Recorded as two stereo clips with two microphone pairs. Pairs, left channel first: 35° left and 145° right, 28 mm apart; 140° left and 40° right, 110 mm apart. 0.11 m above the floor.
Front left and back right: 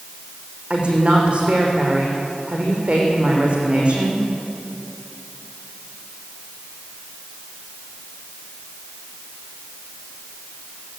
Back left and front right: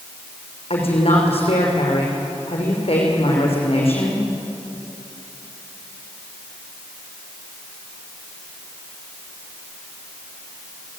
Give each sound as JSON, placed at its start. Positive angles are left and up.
{"t": 0.7, "sound": "a woman speaking", "azimuth_deg": 165, "distance_m": 6.5}